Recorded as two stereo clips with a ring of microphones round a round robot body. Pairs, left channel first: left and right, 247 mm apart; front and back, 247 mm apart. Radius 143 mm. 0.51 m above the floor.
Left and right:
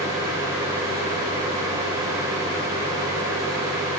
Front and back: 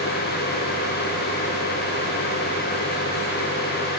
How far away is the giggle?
I don't hear a giggle.